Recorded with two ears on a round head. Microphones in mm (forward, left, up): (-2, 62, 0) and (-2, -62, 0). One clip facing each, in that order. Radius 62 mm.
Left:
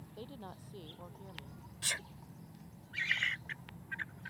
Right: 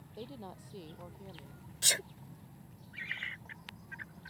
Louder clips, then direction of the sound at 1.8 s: Right 6 dB; 50° right (ahead or behind).